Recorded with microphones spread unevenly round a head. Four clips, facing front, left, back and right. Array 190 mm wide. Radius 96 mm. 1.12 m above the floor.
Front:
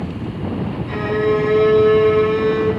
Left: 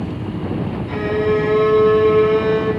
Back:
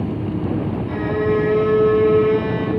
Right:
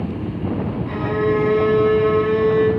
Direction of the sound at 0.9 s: 50° right.